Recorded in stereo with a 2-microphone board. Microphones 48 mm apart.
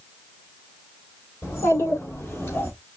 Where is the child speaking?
70° left (ahead or behind), 3.5 m; by 2.7 s 55° left (ahead or behind), 2 m.